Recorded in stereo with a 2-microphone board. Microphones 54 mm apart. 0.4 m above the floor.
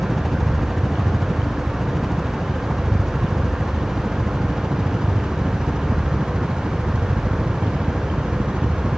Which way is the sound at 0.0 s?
5° left (ahead or behind).